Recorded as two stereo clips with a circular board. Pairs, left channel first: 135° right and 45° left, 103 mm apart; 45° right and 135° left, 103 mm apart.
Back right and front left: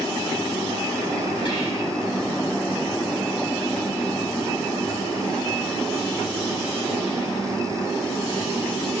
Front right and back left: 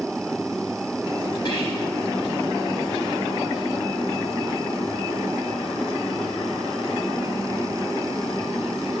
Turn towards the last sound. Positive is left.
turn(degrees=-95)